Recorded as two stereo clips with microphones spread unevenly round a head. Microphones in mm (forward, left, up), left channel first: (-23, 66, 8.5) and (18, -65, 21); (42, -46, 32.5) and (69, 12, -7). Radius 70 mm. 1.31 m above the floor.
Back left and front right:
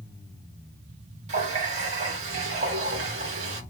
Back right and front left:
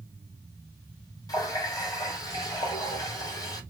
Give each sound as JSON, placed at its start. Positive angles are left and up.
{"t": 1.3, "sound": "a running tap", "azimuth_deg": -115, "distance_m": 1.6}